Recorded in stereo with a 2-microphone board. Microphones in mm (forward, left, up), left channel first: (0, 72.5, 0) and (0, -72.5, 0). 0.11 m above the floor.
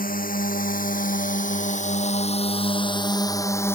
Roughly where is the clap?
No clap in this recording.